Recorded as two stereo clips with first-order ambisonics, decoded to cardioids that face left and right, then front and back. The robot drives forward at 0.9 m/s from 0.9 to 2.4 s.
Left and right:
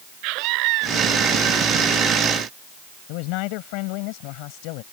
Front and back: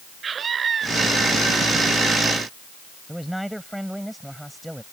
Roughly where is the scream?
Behind right.